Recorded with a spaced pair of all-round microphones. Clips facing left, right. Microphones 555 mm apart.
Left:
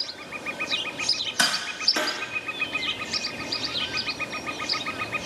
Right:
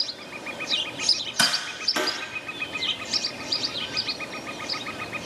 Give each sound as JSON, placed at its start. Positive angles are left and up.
{"t": 1.4, "sound": "tapping", "side_deg": -30, "distance_m": 0.6}